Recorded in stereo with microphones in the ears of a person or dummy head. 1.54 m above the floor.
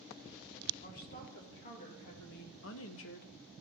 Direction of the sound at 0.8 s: 45° left (ahead or behind).